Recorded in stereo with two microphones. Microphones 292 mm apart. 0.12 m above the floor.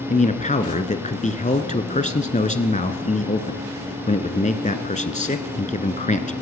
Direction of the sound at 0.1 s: 25° left (ahead or behind).